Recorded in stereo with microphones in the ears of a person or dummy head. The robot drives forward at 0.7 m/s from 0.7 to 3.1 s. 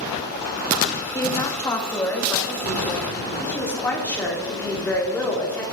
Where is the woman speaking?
20° left (ahead or behind), 1.0 m; by 5.6 s 5° left (ahead or behind), 2.5 m.